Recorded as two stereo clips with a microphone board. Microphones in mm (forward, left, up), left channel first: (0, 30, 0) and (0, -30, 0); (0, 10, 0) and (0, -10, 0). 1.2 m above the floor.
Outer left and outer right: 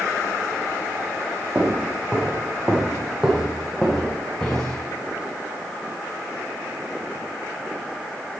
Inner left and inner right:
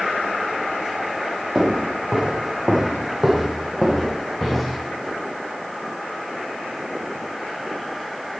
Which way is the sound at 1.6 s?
25° right (ahead or behind).